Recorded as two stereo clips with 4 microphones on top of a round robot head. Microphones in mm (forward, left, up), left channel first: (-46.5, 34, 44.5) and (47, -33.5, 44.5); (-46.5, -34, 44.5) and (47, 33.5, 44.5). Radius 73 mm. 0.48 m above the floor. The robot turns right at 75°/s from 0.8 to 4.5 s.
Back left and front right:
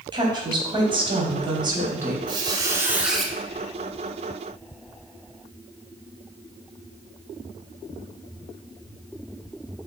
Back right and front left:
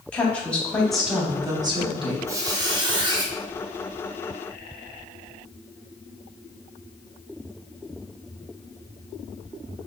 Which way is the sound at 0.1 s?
65° right.